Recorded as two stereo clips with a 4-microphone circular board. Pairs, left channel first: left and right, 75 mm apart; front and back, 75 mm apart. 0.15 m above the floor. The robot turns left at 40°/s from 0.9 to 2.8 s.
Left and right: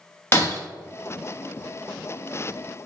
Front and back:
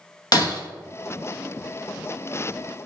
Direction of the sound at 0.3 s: 30° left.